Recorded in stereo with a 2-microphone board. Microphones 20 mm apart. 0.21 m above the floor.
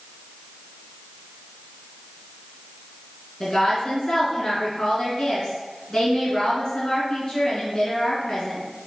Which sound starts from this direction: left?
A woman speaking, at 3.4 s.